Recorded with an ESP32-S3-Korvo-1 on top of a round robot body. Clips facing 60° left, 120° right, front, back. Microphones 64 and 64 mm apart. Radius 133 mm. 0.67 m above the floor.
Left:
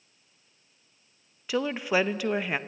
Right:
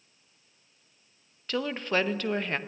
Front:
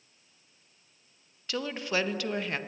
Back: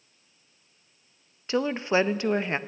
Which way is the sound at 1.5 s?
135° left.